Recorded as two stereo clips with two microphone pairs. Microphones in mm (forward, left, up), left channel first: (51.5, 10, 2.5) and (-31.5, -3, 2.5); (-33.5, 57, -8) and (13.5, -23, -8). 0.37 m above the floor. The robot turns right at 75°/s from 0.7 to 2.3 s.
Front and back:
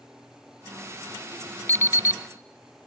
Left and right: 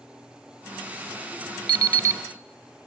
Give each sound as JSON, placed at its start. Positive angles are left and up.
{"t": 1.7, "sound": "an alarm clock", "azimuth_deg": -45, "distance_m": 0.6}